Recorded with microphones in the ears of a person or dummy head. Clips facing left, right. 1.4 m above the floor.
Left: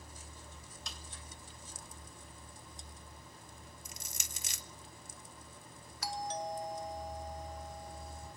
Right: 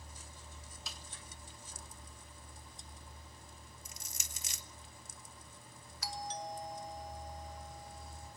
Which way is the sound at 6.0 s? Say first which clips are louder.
Left 4 dB; 55° left (ahead or behind).